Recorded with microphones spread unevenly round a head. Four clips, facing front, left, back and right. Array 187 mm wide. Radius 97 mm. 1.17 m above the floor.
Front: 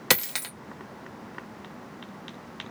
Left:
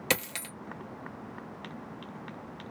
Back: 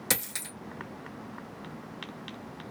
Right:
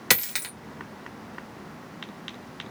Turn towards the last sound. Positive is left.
turn(degrees=25)